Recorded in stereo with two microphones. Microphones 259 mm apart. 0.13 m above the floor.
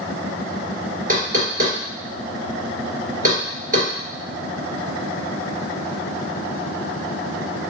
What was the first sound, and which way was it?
Knocking, 35° right (ahead or behind).